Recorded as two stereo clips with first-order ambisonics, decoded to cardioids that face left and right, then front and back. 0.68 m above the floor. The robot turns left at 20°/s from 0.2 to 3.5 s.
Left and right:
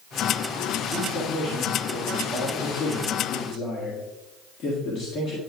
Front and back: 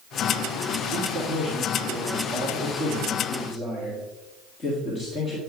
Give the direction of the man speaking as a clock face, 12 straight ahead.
8 o'clock.